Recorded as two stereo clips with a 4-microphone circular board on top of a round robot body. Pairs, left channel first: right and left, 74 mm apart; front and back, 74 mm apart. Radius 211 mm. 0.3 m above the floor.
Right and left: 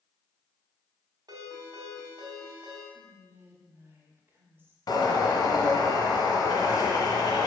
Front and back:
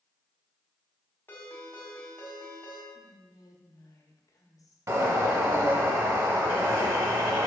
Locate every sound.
1.3 s a ringtone: 60° left, 2 m
2.9 s whispering: 30° left, 1.8 m
4.9 s a bird: 130° right, 1.0 m